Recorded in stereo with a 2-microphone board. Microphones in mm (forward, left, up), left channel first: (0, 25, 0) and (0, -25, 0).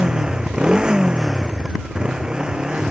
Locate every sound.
0.0 s a motorcycle: 15° right (ahead or behind)